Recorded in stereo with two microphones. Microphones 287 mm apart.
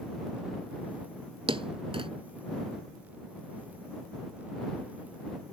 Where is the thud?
20° right (ahead or behind).